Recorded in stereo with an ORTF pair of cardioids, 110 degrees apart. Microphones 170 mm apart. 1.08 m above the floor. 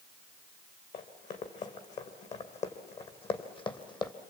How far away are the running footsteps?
About 3.5 m.